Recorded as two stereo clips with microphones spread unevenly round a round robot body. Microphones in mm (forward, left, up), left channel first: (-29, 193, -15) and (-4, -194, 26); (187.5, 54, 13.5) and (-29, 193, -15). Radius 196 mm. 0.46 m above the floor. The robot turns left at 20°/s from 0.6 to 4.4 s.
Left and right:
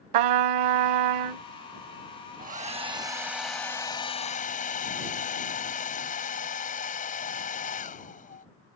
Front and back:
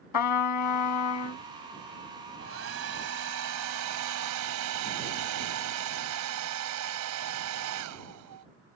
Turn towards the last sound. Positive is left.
turn(degrees=165)